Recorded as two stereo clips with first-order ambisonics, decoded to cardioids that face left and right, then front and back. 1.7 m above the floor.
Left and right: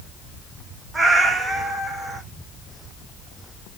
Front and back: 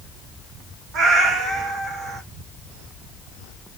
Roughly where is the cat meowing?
Behind.